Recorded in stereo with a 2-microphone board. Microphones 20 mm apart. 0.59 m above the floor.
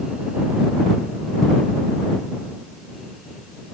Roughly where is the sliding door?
I don't hear a sliding door.